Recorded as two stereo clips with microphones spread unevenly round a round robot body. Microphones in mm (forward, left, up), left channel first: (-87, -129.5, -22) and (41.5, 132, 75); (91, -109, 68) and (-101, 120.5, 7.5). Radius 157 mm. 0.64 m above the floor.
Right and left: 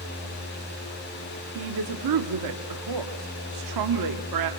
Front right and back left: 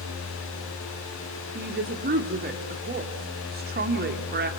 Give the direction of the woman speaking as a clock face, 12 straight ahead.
9 o'clock.